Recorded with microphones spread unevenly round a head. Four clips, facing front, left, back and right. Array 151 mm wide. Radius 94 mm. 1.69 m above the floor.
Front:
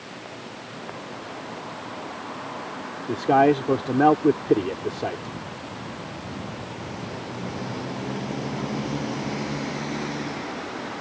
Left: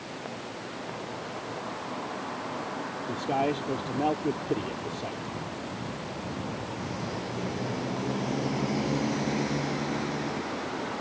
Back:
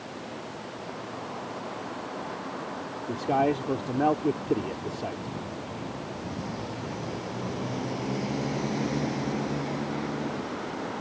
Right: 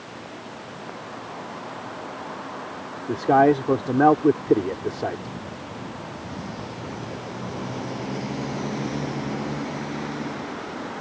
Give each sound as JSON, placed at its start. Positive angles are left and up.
{"t": 3.1, "sound": "a man speaking", "azimuth_deg": -50}